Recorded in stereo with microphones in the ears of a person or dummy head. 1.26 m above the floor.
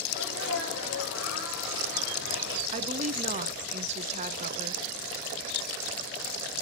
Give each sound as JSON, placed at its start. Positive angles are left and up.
{"t": 0.1, "sound": "a sneeze", "side_deg": 80, "distance_m": 5.5}
{"t": 2.7, "sound": "a woman speaking", "side_deg": -30, "distance_m": 0.5}